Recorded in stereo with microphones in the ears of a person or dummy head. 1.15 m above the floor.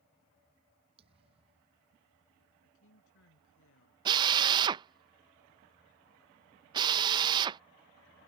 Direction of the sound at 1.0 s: 35° right (ahead or behind).